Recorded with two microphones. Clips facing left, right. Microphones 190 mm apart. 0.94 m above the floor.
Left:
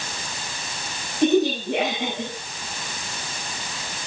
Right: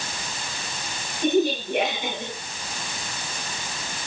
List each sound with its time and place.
1.2 s a woman speaking: 80° left, 8.5 m